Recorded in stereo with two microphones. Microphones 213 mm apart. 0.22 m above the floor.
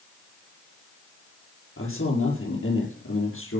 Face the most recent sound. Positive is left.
turn(degrees=80)